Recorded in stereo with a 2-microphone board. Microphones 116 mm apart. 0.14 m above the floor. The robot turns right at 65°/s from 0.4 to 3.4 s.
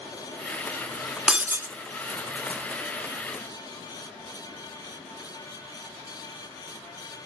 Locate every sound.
1.3 s breaking glass: 5° right (ahead or behind), 0.5 m; by 1.7 s 25° right (ahead or behind), 0.5 m